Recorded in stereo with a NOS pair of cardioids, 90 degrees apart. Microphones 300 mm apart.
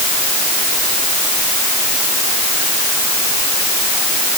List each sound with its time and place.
Only background noise.